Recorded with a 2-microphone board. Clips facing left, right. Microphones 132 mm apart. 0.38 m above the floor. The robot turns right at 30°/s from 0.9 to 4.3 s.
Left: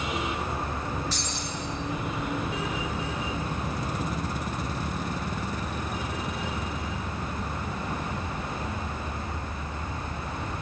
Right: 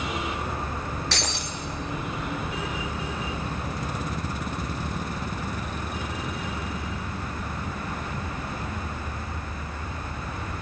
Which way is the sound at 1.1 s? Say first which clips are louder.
Right 2 dB; 85° right.